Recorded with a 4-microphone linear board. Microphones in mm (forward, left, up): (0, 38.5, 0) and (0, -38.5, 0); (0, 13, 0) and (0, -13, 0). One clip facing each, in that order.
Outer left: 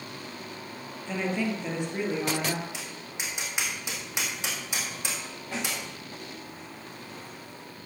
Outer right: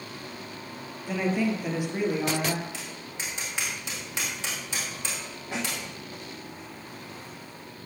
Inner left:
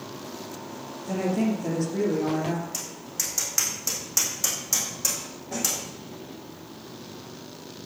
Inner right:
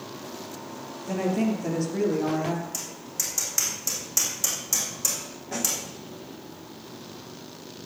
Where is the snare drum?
15° right (ahead or behind), 5 m.